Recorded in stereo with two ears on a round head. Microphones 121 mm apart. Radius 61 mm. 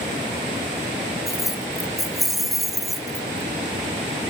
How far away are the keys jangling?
About 0.7 m.